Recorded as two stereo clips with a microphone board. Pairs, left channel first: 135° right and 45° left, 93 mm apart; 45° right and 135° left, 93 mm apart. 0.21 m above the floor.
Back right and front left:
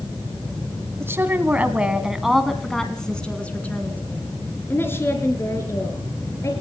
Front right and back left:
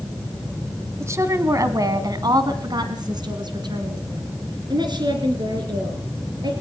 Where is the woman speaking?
90° left, 1.6 m; by 6.5 s 170° left, 4 m.